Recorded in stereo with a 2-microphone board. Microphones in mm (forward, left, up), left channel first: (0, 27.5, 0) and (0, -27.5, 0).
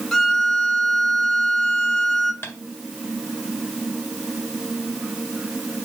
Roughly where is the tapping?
Left.